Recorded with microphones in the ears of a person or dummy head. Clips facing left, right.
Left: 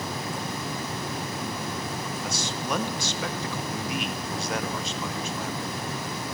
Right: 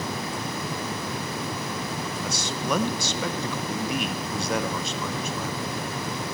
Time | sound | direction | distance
2.2 | a man speaking | 80° right | 0.6 m